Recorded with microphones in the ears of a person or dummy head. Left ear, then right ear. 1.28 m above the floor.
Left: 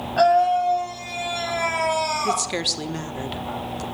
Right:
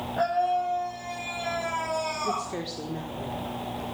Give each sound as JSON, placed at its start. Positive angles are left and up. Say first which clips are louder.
{"t": 0.2, "sound": "a scream", "louder": "left 8 dB", "side_deg": 90, "distance_m": 8.0}
{"t": 2.2, "sound": "a woman speaking", "louder": "left 7 dB", "side_deg": 65, "distance_m": 1.4}